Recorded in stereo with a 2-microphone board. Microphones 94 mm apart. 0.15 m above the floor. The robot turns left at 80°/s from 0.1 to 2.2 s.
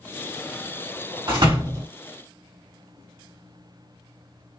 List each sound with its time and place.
1.3 s a door slam: 85° right, 2 m; by 1.9 s 135° right, 2 m